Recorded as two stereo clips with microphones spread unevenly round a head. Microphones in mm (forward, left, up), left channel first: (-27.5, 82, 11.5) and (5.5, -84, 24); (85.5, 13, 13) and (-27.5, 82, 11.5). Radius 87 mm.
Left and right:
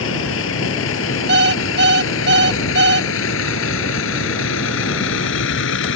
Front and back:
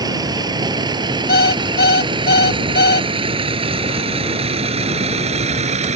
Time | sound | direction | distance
0.0 | a vehicle | 90° left | ?
1.3 | an alarm clock | 50° right | ?